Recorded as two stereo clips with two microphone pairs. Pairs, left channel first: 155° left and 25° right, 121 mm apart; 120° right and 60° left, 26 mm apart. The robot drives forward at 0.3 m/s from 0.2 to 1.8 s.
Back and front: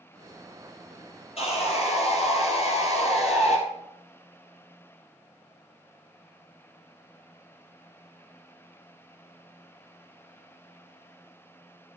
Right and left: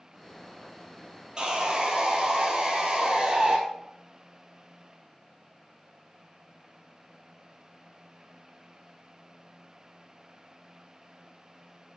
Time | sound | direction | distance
1.4 | sawing | 120° left | 1.7 m